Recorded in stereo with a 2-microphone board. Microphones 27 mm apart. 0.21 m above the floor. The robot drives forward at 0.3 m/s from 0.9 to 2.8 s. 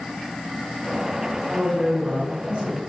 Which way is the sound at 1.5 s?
35° right (ahead or behind).